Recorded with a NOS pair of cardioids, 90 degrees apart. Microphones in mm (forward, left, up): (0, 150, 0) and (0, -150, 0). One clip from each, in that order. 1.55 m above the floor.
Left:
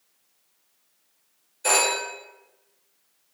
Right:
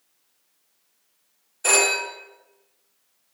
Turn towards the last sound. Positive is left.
turn(degrees=-45)